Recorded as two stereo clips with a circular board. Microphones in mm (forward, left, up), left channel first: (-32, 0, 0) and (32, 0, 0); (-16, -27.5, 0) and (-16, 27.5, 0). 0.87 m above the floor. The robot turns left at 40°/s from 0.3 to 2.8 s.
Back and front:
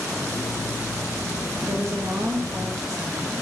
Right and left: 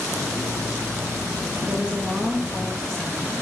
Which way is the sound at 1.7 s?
35° left.